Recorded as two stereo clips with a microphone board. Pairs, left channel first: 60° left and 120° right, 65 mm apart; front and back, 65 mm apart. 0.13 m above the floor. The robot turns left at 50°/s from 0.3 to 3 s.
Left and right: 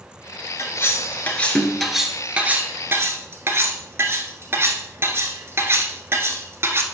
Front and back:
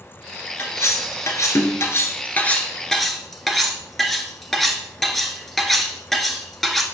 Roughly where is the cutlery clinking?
Ahead left.